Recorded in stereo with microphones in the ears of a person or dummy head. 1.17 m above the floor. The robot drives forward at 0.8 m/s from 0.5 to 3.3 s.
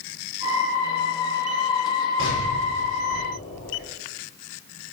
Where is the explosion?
80° left, 5.5 m; by 3.9 s 75° left (ahead or behind), 5.5 m.